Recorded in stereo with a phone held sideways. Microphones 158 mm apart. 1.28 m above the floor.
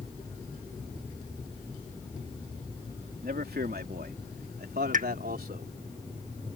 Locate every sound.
3.2 s a man speaking: 75° right (ahead or behind)
4.9 s a pop: 55° right (ahead or behind)